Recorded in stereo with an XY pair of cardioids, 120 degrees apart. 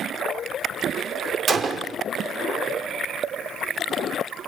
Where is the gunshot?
40° right, 1.0 m.